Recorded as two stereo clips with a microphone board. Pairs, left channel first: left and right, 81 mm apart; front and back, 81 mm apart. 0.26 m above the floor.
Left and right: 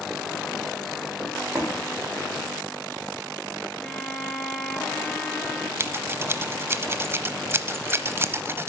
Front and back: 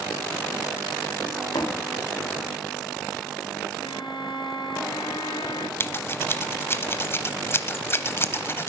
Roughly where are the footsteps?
Ahead right.